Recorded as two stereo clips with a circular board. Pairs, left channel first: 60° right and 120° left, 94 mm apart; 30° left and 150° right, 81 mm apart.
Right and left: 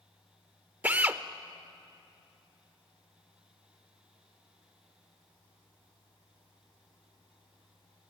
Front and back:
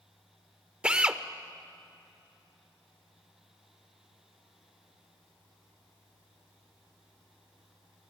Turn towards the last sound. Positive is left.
turn(degrees=155)